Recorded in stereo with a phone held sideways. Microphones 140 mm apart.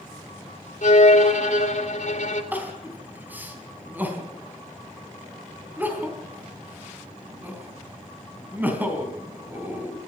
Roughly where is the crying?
Centre.